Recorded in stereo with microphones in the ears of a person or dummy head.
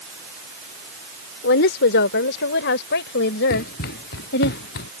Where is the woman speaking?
70° left (ahead or behind); by 4.5 s 65° left (ahead or behind).